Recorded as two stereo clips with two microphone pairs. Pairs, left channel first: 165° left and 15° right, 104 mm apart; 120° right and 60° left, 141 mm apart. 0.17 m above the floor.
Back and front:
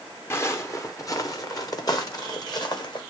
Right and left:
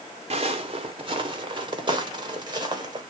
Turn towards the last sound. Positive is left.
turn(degrees=120)